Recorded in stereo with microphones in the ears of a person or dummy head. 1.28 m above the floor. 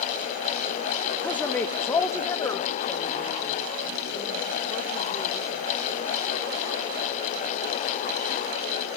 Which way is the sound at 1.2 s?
10° left (ahead or behind).